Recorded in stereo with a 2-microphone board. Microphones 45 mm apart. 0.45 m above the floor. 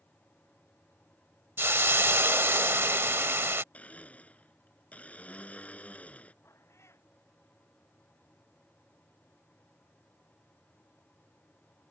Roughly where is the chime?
No chime in this recording.